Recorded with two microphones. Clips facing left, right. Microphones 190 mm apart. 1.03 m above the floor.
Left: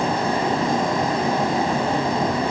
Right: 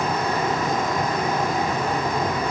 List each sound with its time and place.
Only background noise.